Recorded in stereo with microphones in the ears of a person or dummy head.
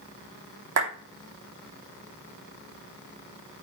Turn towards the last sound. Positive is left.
turn(degrees=-75)  # may be behind; listen again after turning